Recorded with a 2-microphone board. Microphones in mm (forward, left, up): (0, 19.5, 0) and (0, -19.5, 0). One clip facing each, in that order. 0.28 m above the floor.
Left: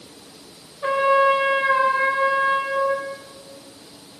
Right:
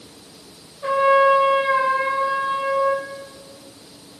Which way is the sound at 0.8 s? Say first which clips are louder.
Right 2 dB; 25° left (ahead or behind).